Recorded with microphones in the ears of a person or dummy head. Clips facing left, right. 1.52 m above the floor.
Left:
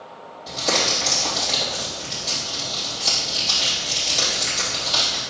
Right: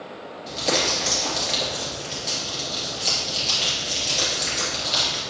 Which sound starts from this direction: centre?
Crumpling, at 0.5 s.